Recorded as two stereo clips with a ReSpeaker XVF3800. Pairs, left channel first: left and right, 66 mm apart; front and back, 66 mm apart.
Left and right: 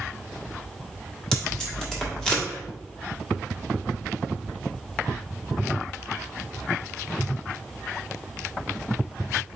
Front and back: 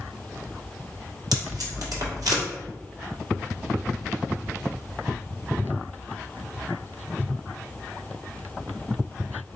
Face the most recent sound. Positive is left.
turn(degrees=170)